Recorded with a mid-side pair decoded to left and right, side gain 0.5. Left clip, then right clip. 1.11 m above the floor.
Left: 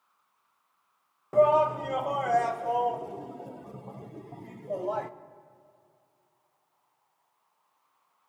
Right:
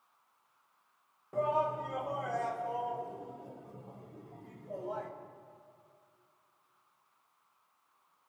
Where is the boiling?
No boiling in this recording.